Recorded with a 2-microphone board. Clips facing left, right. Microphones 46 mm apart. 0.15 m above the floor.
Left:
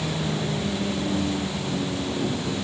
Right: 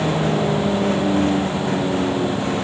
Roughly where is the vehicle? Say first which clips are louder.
Right 8 dB; right.